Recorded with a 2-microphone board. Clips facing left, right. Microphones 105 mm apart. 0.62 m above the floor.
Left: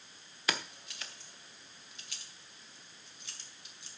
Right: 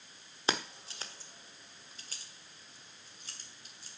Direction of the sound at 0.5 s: 30° right (ahead or behind).